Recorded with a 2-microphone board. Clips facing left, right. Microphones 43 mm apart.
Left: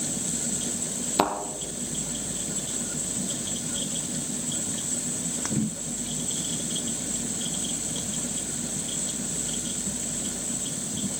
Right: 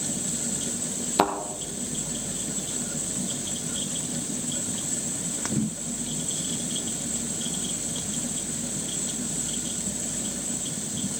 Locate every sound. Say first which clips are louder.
1.2 s a thud: right 1 dB; centre (ahead or behind), 1.7 m